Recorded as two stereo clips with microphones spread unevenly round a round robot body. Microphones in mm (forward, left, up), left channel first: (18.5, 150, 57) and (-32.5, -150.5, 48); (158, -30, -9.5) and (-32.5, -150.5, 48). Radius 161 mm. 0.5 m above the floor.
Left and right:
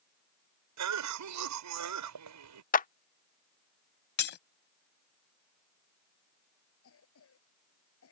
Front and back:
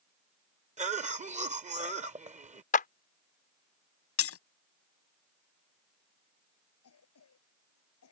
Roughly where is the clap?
Ahead left.